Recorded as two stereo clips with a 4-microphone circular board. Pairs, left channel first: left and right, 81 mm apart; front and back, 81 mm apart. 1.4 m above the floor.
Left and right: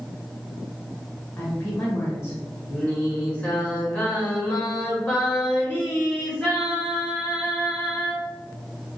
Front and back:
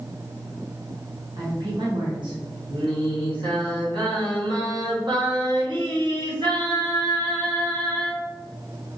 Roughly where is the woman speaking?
Behind left.